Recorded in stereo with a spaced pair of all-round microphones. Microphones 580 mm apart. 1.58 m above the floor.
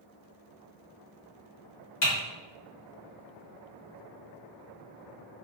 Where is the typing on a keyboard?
45° left (ahead or behind), 1.3 m.